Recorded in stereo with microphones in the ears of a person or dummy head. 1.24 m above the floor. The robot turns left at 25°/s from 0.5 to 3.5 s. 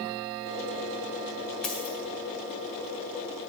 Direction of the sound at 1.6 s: 5° left (ahead or behind).